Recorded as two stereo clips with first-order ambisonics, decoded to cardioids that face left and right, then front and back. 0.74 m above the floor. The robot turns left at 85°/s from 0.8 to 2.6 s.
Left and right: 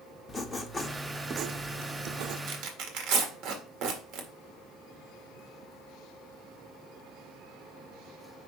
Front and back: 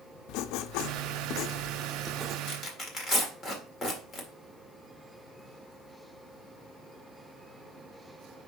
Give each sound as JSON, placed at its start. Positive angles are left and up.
{"t": 0.3, "sound": "writing", "azimuth_deg": 20, "distance_m": 0.6}
{"t": 2.5, "sound": "tearing paper", "azimuth_deg": -55, "distance_m": 1.6}